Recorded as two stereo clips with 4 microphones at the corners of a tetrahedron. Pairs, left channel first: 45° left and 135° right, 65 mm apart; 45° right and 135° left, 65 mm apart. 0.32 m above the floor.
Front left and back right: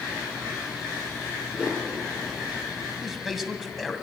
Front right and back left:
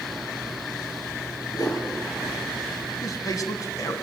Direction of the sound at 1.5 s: 60° right.